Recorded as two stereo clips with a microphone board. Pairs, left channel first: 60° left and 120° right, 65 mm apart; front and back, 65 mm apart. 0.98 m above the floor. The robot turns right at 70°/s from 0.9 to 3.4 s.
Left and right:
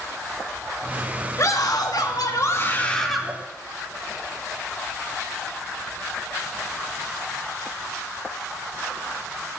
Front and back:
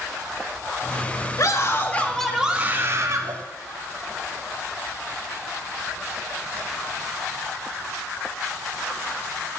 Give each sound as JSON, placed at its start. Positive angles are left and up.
{"t": 1.4, "sound": "a scream", "azimuth_deg": 25, "distance_m": 1.6}